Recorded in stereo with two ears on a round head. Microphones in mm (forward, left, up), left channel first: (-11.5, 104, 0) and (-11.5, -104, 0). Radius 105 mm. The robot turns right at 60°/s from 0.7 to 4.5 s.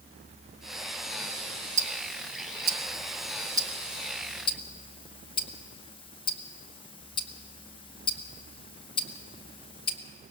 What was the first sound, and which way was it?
Ticking, 30° right (ahead or behind).